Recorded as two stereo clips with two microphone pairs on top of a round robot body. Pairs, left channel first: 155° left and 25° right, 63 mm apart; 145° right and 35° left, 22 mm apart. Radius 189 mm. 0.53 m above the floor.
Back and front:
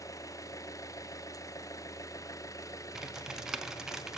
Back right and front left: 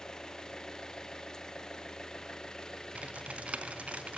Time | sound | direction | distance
0.0 | an engine running | 160° left | 1.0 m
3.0 | typing on a keyboard | 55° left | 0.8 m